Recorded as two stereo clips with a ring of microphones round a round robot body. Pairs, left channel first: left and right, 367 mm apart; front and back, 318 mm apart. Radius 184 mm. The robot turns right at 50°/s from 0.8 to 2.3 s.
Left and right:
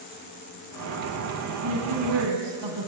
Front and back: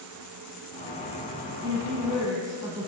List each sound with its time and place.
1.6 s a woman speaking: 135° right, 2.5 m; by 2.9 s 100° right, 2.5 m